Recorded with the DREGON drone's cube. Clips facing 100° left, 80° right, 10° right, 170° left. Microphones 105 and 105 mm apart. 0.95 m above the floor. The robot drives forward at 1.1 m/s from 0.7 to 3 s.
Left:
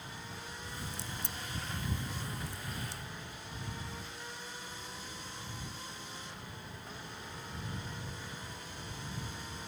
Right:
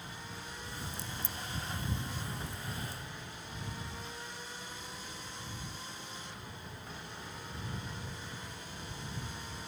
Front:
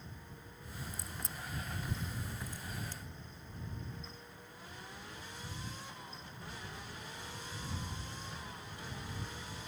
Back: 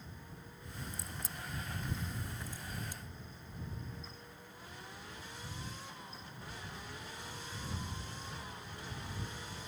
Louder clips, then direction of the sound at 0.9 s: Right 1 dB, even; 80° left.